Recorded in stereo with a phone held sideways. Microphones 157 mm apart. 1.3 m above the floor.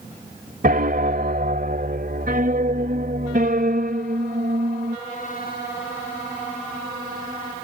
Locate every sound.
0.6 s a piano: 70° right (ahead or behind)